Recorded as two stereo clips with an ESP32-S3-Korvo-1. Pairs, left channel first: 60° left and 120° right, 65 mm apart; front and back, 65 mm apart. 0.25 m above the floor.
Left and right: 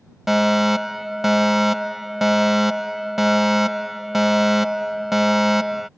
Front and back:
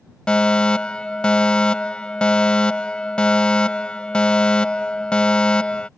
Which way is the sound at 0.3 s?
45° right.